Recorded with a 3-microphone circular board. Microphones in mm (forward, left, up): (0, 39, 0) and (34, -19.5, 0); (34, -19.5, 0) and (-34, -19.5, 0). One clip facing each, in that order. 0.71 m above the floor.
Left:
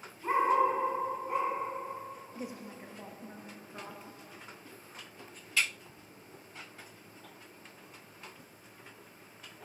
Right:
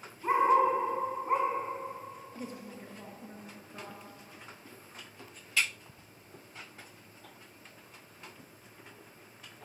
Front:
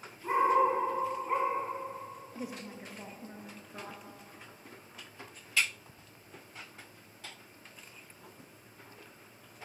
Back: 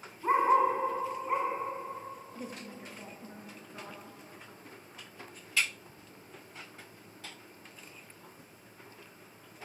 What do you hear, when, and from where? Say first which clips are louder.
0.2 s a dog barking: right 2 dB, back 1 dB; 140° right, 1.7 m; by 1.5 s 90° right, 1.5 m
2.4 s a woman speaking: even, front 1 dB; 70° left, 0.5 m